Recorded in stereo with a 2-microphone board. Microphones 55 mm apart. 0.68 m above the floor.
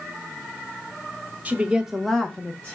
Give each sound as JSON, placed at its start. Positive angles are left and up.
{"t": 1.4, "sound": "a woman speaking", "side_deg": -30, "distance_m": 0.9}